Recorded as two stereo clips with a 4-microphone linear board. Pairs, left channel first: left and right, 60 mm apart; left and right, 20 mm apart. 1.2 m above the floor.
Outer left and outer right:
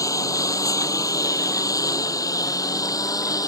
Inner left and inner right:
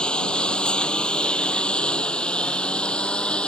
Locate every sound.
0.0 s a lawn mower: 65° left (ahead or behind); by 3.5 s 75° left (ahead or behind)